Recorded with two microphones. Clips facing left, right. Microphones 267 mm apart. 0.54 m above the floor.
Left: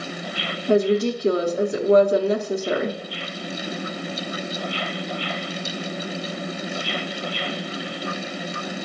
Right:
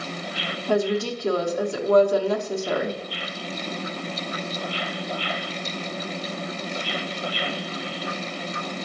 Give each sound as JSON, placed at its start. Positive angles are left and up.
{"t": 0.7, "sound": "a woman speaking", "side_deg": 20, "distance_m": 0.8}